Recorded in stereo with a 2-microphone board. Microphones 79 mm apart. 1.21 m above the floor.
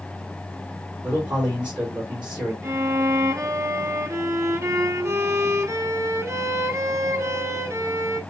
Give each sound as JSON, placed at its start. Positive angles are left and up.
{"t": 1.0, "sound": "a man speaking", "side_deg": -15, "distance_m": 3.5}
{"t": 2.6, "sound": "a violin", "side_deg": -35, "distance_m": 0.8}